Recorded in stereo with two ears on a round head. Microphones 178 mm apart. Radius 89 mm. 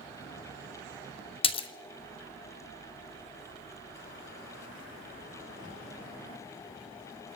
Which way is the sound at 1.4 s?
30° left (ahead or behind).